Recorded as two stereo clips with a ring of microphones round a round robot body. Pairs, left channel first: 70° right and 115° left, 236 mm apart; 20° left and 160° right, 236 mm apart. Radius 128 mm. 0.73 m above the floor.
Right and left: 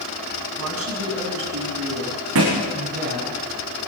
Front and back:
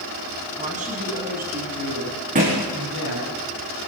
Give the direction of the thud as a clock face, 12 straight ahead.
7 o'clock.